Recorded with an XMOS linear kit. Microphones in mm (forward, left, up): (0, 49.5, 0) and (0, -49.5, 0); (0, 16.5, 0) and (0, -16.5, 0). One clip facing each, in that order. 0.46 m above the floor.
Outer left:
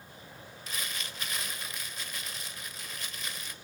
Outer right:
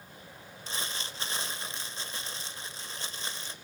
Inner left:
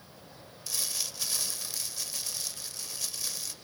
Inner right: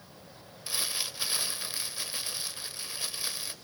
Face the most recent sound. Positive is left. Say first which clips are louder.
# outer right 2 dB, inner right 2 dB
turn(degrees=-30)  # may be behind; listen again after turning